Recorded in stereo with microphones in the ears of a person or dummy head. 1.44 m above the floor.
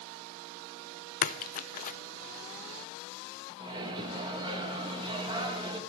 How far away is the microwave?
About 1.5 m.